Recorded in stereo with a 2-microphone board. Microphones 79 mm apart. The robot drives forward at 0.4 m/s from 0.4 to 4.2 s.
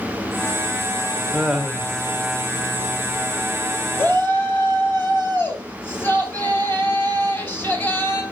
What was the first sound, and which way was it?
Laughter, 5° right (ahead or behind).